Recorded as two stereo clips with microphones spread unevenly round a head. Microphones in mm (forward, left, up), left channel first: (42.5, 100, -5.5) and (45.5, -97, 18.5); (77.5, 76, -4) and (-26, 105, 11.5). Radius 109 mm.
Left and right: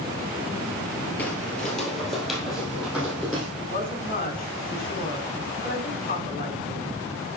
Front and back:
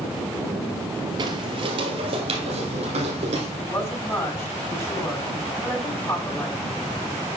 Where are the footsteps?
Straight behind, 1.6 m; by 3.5 s 170° right, 3 m.